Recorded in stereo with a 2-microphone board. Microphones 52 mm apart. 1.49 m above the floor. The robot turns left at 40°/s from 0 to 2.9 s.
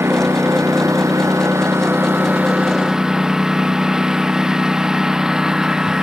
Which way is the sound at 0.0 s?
55° right.